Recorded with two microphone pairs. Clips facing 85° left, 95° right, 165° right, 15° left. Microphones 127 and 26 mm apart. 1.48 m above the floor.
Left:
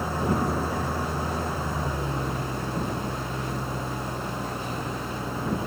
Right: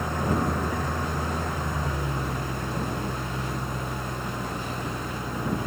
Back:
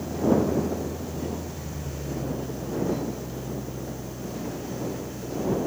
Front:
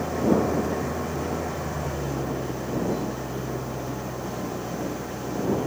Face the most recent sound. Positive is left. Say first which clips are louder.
# even, front 1 dB
turn(degrees=0)